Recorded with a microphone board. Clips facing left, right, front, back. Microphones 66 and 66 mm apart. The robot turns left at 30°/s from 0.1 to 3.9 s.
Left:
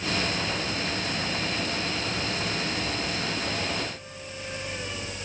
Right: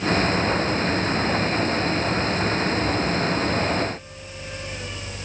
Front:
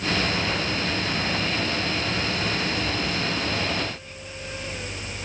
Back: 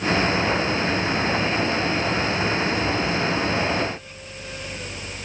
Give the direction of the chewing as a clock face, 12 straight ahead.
No chewing in this recording.